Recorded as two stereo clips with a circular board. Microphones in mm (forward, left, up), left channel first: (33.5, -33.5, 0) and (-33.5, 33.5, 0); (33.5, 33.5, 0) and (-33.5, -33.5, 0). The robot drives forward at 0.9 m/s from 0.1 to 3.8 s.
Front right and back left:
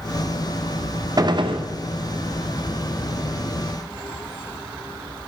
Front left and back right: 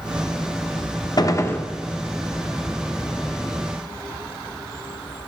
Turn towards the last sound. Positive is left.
turn(degrees=165)